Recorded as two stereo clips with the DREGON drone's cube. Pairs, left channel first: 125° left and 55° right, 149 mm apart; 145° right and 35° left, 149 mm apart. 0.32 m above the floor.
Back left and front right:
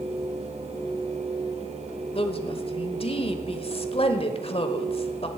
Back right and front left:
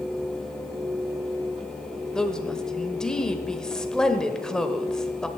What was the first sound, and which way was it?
A woman speaking, 130° left.